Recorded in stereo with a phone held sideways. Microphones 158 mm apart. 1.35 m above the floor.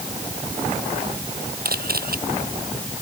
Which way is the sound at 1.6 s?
65° right (ahead or behind).